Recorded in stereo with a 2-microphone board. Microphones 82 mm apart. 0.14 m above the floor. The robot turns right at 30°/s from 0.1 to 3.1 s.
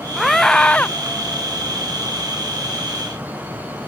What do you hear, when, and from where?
0.2 s a scream: 5° right (ahead or behind); by 0.9 s 20° left (ahead or behind)